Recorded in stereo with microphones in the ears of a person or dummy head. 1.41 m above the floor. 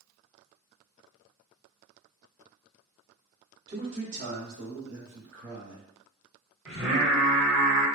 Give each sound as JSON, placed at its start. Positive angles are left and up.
{"t": 3.7, "sound": "a man speaking", "side_deg": -15, "distance_m": 0.6}
{"t": 6.7, "sound": "singing", "side_deg": 5, "distance_m": 1.7}